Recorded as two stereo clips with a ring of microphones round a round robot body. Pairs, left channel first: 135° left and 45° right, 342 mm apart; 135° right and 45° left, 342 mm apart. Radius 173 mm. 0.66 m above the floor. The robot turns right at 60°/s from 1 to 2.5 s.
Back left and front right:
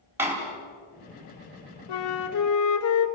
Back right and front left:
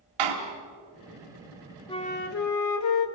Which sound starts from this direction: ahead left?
A door slam, at 0.2 s.